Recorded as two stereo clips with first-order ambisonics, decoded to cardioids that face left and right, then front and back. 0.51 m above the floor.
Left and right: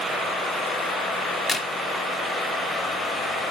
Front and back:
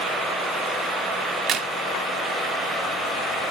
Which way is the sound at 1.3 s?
170° left.